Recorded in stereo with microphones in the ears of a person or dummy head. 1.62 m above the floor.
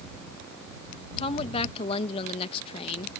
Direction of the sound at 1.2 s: 30° left (ahead or behind).